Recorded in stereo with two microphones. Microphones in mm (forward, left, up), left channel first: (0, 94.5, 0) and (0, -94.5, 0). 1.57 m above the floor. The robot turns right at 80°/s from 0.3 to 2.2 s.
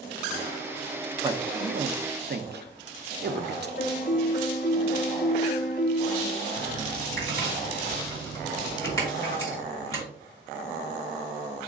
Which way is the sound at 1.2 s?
25° right (ahead or behind).